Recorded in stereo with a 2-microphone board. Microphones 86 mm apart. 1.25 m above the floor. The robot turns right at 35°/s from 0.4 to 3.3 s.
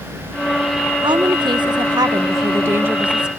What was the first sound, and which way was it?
A woman speaking, 90° right.